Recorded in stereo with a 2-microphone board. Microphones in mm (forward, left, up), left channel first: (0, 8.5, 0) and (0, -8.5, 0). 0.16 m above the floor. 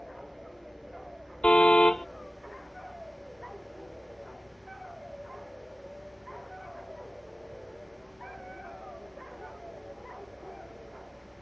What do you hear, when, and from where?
1.4 s a car horn: 75° left (ahead or behind)